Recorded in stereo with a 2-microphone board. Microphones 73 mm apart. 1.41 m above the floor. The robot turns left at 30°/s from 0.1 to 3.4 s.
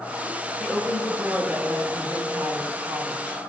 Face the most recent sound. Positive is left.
turn(degrees=-105)